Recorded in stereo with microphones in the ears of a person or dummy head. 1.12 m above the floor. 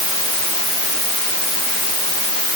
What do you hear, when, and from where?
Only background noise.